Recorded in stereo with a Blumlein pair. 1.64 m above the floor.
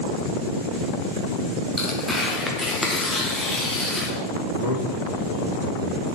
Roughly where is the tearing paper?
Ahead.